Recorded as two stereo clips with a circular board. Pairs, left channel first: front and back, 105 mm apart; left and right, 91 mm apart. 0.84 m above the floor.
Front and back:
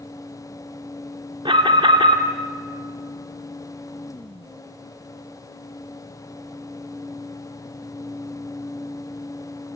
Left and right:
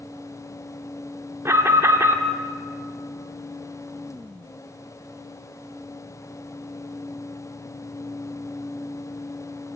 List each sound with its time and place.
1.4 s an alarm: 145° right, 2 m